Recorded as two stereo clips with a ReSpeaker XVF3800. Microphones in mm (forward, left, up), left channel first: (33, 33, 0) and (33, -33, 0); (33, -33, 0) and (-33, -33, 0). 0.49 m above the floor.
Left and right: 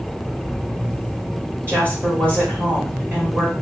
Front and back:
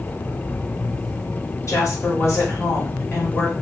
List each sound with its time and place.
1.7 s a woman speaking: 40° right, 2 m